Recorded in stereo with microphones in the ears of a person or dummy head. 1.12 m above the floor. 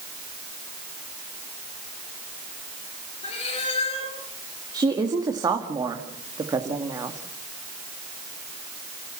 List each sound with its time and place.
3.2 s a cat meowing: 35° left (ahead or behind), 6 m
4.7 s a woman speaking: 15° right (ahead or behind), 1.9 m